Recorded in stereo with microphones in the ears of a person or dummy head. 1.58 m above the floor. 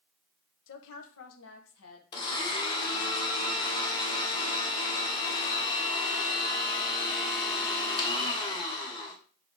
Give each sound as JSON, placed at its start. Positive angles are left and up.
{"t": 0.7, "sound": "a woman speaking", "side_deg": 70, "distance_m": 1.1}
{"t": 2.1, "sound": "a blender", "side_deg": 25, "distance_m": 2.0}